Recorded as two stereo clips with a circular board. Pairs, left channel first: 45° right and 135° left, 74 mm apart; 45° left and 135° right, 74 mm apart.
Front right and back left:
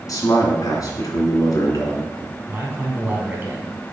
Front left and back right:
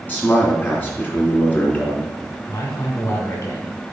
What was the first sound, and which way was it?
A man speaking, 15° right.